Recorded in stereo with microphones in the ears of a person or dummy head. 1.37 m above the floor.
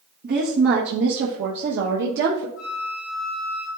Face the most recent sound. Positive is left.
turn(degrees=55)  # may be behind; listen again after turning